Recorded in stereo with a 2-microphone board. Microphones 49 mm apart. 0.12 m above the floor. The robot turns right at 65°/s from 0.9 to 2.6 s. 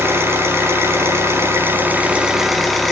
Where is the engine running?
110° right, 2.5 m; by 2.9 s straight ahead, 2.5 m.